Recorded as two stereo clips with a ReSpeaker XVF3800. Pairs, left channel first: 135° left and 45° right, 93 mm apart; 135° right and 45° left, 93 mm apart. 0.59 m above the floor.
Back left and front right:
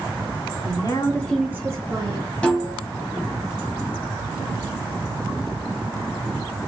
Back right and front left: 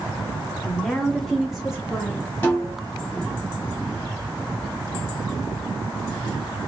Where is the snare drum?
165° right, 1.2 m.